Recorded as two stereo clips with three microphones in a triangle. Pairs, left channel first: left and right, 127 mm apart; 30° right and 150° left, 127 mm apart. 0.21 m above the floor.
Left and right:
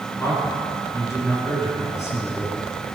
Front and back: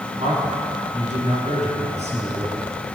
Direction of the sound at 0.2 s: 150° left.